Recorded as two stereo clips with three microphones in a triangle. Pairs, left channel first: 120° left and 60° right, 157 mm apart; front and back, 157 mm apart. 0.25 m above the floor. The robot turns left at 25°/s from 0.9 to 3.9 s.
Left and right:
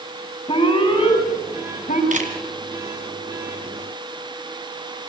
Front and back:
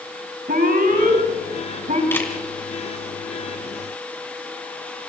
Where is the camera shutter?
75° right, 2.5 m; by 2.3 s 80° right, 2.5 m.